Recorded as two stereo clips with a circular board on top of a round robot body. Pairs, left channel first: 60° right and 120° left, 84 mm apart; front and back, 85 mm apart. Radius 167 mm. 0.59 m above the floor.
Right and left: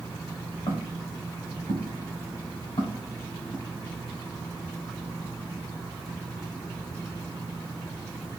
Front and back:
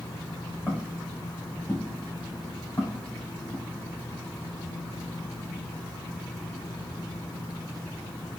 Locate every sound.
0.7 s footsteps: 80° right, 3 m; by 3.6 s 55° right, 4 m